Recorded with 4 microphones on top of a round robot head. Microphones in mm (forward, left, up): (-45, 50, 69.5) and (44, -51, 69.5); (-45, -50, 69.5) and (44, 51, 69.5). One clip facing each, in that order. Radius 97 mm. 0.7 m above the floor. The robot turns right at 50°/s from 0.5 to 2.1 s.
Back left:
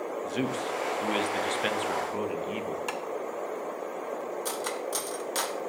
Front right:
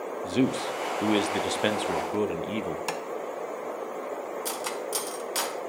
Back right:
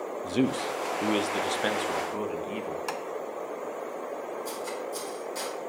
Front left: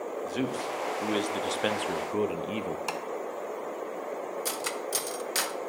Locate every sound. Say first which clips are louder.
0.2 s a man speaking: front right 7 dB, back right 6 dB; 85° right, 0.6 m; by 2.8 s 5° right, 0.6 m
2.9 s tapping: front right 2 dB, even; 15° right, 0.9 m
4.5 s cutlery clinking: even, even; 35° left, 0.9 m